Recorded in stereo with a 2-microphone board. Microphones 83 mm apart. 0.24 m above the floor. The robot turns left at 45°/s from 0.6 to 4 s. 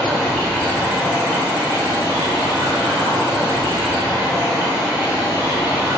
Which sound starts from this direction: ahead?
Running water, at 0.0 s.